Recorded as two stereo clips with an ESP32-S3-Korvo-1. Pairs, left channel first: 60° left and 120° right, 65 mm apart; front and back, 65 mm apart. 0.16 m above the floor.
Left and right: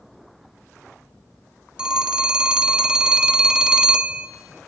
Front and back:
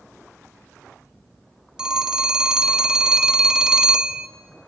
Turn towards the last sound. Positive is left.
turn(degrees=-140)